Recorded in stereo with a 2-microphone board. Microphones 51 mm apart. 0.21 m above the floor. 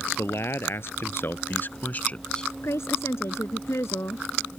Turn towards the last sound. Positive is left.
turn(degrees=60)  # may be behind; listen again after turning